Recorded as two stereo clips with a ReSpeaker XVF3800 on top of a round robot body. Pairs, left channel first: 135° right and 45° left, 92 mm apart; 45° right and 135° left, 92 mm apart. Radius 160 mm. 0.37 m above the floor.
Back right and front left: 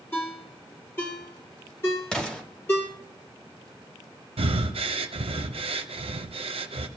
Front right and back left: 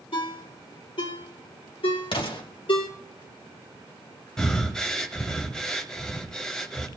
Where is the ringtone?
70° right, 5.5 m.